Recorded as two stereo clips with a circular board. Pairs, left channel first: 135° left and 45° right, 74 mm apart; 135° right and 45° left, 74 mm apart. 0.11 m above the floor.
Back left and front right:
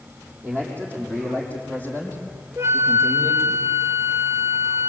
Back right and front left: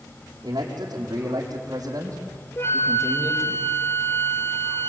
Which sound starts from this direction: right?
A flute, at 2.6 s.